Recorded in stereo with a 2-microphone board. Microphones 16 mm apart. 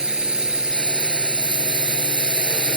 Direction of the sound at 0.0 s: 75° right (ahead or behind).